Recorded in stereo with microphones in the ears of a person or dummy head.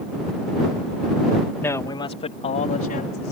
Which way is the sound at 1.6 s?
10° left (ahead or behind).